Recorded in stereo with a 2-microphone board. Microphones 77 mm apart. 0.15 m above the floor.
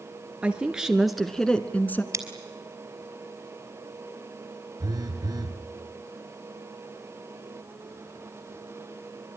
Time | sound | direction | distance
0.4 | a woman speaking | 15° right (ahead or behind) | 2.5 m
2.1 | scissors | 45° right (ahead or behind) | 3.5 m
4.8 | a phone buzzing | 55° right (ahead or behind) | 3 m